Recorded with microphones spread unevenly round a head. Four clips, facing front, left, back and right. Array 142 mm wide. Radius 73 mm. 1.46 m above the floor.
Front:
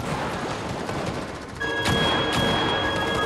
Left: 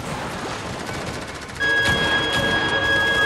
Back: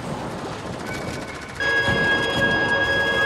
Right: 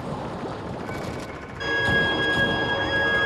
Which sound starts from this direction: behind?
A violin, at 1.6 s.